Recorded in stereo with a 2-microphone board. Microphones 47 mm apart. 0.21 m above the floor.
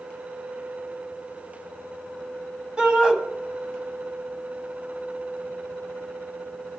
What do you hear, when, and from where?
2.8 s a shout: 15° right (ahead or behind), 1.2 m